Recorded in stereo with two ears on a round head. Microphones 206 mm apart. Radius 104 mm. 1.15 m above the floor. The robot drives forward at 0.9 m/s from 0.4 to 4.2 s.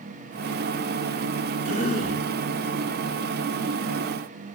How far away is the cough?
About 4.5 m.